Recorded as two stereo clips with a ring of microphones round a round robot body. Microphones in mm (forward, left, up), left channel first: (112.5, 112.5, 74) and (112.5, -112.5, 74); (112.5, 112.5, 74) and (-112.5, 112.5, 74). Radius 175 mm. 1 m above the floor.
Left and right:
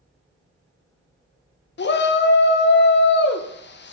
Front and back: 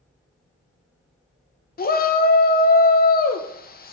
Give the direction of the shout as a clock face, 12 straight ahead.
10 o'clock.